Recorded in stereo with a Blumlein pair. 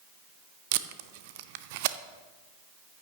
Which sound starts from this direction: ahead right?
Tape being pulled, at 0.7 s.